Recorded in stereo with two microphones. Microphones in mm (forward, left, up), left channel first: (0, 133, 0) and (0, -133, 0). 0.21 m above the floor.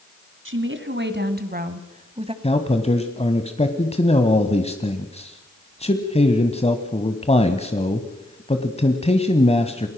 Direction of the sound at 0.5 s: 50° right (ahead or behind).